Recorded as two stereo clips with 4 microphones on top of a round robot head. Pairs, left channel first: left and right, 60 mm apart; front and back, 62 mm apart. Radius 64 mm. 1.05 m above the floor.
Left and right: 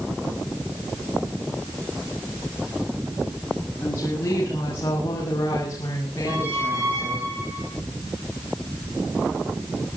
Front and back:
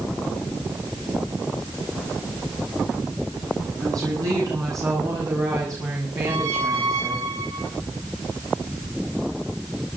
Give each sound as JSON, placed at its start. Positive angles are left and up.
{"t": 3.8, "sound": "a woman speaking", "azimuth_deg": 155, "distance_m": 8.0}
{"t": 6.3, "sound": "a squeak", "azimuth_deg": -150, "distance_m": 8.5}